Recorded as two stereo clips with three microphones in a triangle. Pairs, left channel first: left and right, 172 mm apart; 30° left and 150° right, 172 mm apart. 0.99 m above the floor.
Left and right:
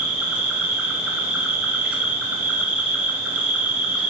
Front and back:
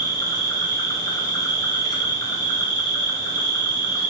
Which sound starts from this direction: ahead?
An insect, at 0.0 s.